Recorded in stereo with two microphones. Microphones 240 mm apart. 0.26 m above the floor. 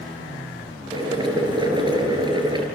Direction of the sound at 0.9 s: 20° right (ahead or behind).